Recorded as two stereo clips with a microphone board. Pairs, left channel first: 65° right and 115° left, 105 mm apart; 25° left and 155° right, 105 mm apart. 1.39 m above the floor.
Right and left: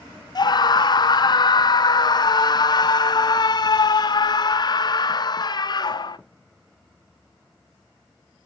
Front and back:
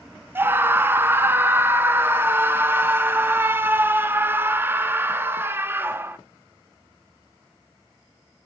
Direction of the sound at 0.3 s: 95° right.